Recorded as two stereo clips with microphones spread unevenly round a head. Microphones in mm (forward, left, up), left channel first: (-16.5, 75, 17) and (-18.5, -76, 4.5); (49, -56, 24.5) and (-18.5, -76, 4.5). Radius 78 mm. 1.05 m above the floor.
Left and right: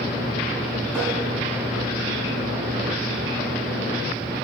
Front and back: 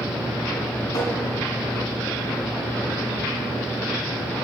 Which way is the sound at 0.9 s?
15° right.